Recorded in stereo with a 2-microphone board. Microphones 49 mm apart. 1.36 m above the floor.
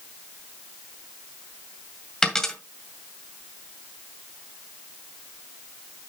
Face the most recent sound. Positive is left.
turn(degrees=15)  # may be behind; listen again after turning